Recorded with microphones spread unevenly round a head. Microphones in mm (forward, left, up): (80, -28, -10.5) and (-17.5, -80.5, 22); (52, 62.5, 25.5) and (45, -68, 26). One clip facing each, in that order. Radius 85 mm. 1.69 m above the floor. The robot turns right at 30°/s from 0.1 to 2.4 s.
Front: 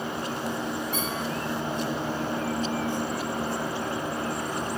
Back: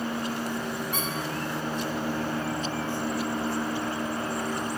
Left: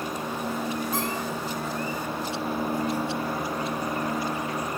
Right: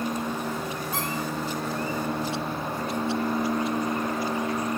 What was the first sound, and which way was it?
A squeak, 160° left.